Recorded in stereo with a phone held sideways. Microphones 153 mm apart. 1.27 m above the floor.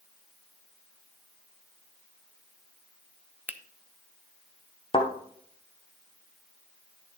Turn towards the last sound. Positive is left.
turn(degrees=35)  # may be behind; listen again after turning